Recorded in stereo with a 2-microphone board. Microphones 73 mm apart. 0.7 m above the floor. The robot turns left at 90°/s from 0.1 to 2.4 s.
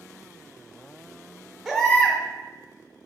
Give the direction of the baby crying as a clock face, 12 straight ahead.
6 o'clock.